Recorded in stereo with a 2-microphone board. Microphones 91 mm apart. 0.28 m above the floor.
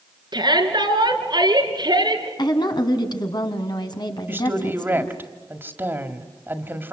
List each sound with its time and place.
0.3 s a shout: 60° right (ahead or behind), 4 m
2.4 s a woman speaking: 55° left (ahead or behind), 2.5 m
4.3 s a woman speaking: 25° right (ahead or behind), 1.7 m